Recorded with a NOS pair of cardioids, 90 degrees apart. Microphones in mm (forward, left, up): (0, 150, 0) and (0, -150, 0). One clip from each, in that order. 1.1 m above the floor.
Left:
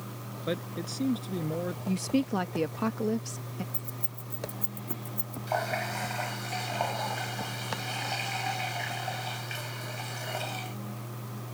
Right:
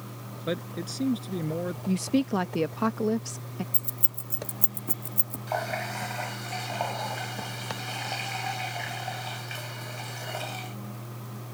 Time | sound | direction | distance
0.5 | a man speaking | 15° right | ?
1.9 | a woman speaking | 15° right | ?
3.7 | keys jangling | 45° right | ?
5.5 | a running tap | 5° right | ?